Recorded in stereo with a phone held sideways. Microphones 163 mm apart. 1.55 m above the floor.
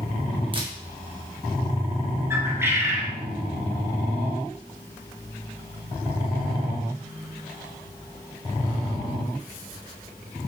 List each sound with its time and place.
0.5 s a camera shutter: 35° right (ahead or behind), 1.4 m
2.3 s a bird: 15° right (ahead or behind), 1.1 m